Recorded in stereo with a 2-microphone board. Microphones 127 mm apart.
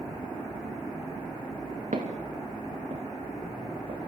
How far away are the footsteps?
About 3.5 m.